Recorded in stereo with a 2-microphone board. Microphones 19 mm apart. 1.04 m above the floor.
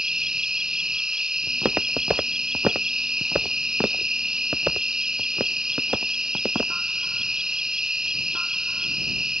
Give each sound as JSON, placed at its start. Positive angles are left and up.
{"t": 0.0, "sound": "an insect", "side_deg": -45}
{"t": 1.5, "sound": "footsteps", "side_deg": -80}